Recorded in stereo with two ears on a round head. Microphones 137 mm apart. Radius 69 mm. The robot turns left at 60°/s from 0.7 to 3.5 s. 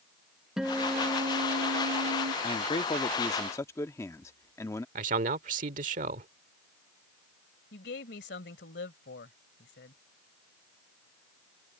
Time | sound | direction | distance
0.6 | a guitar | 5° right | ?
2.4 | a man speaking | 95° left | ?
5.0 | a man speaking | 50° right (ahead or behind) | ?
7.7 | a woman speaking | 75° left (ahead or behind) | ?